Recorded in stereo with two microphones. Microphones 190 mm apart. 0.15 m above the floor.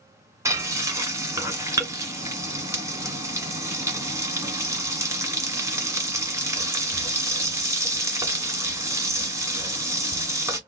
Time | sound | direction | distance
0.5 | frying | 15° right (ahead or behind) | 1.5 m